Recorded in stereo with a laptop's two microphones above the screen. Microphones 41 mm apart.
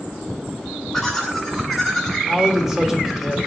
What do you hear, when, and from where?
0.9 s laughter: centre (ahead or behind), 4 m; by 2.2 s 5° right (ahead or behind), 5.5 m
2.3 s a man speaking: 5° right (ahead or behind), 3 m